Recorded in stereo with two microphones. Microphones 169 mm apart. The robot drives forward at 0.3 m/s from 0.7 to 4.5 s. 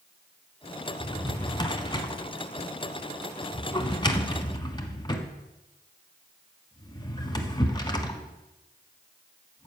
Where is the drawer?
25° left (ahead or behind), 1.1 m.